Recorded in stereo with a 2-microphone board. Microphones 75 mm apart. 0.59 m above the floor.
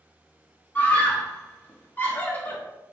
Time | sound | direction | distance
0.8 | a scream | 25° left (ahead or behind) | 0.9 m